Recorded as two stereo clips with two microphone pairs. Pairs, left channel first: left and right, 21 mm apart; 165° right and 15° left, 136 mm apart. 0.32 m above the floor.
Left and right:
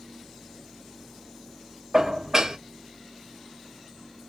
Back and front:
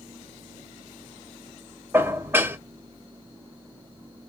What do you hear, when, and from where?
1.9 s dishes clattering: 50° right, 0.7 m